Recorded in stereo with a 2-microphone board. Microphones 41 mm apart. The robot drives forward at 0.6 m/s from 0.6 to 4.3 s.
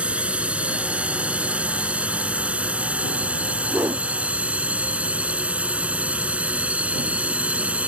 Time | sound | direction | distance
0.0 | a drone | 30° right (ahead or behind) | ?
3.7 | a whoosh | 85° right | ?